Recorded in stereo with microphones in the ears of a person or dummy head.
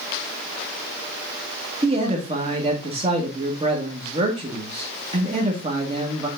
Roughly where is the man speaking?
Right.